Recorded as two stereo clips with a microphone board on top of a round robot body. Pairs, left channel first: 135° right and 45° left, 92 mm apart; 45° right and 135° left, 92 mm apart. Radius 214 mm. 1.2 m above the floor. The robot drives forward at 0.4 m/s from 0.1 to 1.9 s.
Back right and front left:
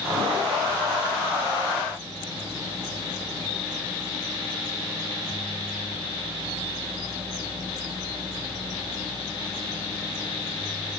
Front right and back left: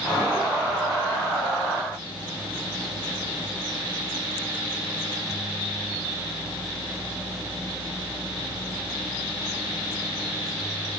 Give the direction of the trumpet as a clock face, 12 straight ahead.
No trumpet in this recording.